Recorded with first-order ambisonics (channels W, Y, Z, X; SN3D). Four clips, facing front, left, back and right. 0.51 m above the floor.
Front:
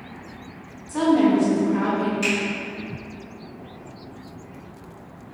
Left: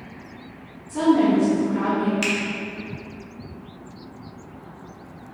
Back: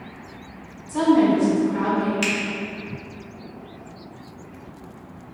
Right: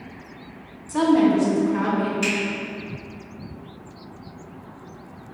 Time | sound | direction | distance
0.9 | a woman speaking | 95° right | 1.1 m
2.2 | a finger snap | 130° left | 0.9 m